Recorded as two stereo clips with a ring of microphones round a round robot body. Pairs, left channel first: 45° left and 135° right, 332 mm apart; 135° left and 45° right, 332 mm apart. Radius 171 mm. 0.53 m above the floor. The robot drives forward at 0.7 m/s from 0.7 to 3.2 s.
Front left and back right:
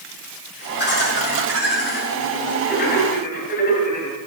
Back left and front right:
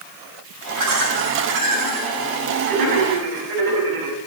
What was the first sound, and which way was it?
Laughter, 15° right.